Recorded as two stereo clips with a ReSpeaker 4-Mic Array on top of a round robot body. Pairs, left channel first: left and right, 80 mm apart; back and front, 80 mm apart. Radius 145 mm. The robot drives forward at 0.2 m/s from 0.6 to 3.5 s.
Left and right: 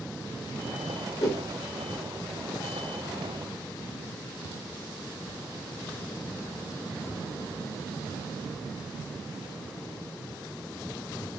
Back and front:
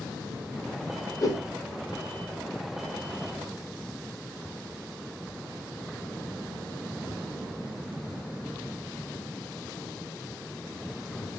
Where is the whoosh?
135° left, 1.8 m.